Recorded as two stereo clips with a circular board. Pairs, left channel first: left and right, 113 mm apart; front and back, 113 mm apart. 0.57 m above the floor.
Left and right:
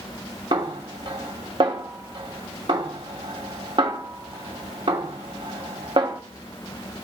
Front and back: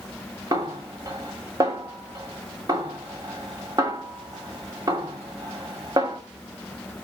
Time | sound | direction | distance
0.5 | a snare drum | 130° right | 2.5 m